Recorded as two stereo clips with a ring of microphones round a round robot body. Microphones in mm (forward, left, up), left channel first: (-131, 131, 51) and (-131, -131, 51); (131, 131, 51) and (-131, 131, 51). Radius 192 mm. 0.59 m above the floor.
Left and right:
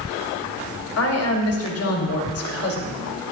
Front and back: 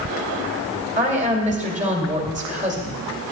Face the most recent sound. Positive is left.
turn(degrees=115)